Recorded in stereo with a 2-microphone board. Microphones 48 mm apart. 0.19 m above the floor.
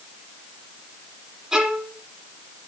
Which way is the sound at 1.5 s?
15° right (ahead or behind).